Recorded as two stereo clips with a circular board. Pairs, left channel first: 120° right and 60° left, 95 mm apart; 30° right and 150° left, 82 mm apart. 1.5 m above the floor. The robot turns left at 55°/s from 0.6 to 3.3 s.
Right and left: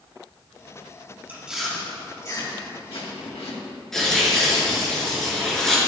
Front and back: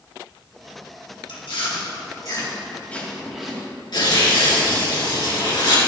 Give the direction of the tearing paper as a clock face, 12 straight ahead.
1 o'clock.